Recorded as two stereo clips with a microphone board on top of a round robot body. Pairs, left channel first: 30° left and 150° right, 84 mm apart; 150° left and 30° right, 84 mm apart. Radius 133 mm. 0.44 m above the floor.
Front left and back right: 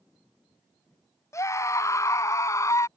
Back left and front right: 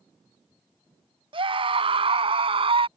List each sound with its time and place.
1.3 s a scream: 25° right